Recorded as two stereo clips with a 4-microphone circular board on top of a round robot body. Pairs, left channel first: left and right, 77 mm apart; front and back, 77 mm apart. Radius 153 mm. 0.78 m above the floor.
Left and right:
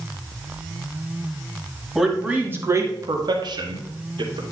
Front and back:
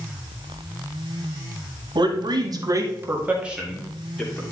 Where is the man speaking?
170° right, 2 m; by 4.4 s 80° right, 3 m.